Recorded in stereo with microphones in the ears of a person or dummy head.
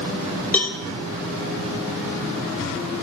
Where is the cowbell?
10° left (ahead or behind), 1.4 m.